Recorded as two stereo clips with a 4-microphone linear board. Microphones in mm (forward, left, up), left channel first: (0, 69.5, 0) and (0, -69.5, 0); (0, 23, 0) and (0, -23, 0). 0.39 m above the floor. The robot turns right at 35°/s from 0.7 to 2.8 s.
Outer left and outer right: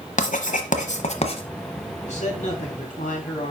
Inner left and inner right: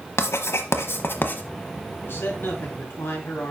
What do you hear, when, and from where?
0.2 s writing: 65° left (ahead or behind), 1.1 m; by 1.4 s 45° left (ahead or behind), 1.1 m
2.0 s a man speaking: 55° left (ahead or behind), 3 m; by 3.5 s 65° left (ahead or behind), 3 m